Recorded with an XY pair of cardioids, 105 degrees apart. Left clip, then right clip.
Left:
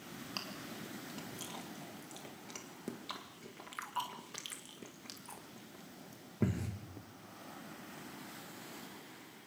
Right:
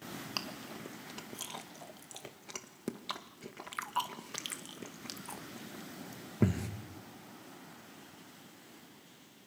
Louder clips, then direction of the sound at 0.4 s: Right 3 dB; 35° right.